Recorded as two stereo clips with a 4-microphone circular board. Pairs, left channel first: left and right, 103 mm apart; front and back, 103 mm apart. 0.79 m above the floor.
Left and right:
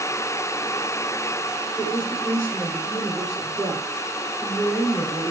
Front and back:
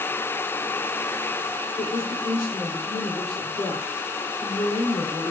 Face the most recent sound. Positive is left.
turn(degrees=25)